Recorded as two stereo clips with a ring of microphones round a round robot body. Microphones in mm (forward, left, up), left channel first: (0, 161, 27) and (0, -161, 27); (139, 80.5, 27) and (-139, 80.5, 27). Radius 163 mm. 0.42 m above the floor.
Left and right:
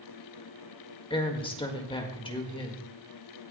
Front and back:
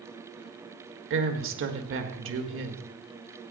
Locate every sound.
1.1 s a woman speaking: 160° left, 1.7 m